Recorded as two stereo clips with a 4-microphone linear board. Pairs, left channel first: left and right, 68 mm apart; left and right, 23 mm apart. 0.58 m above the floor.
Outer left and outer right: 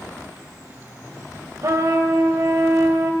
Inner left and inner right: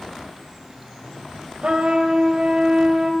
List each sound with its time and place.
1.6 s a trumpet: 50° right (ahead or behind), 0.8 m